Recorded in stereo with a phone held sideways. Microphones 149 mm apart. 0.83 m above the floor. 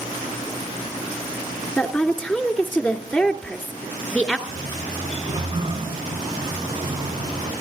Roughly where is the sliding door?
Right.